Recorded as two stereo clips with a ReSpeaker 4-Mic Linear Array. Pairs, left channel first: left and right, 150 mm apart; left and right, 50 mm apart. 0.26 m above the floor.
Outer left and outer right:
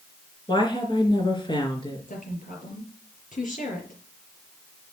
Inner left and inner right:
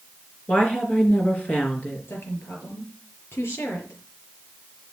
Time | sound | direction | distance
0.5 | a woman speaking | 30° left (ahead or behind) | 4 m
2.1 | a woman speaking | 60° left (ahead or behind) | 5.5 m